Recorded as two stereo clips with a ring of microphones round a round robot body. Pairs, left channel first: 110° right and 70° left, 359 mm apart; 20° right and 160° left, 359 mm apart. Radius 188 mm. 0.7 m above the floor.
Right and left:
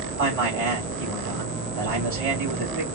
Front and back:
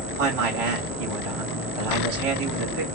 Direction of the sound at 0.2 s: 125° left.